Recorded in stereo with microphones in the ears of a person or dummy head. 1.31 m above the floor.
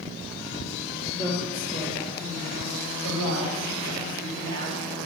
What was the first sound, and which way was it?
A woman speaking, 45° left (ahead or behind).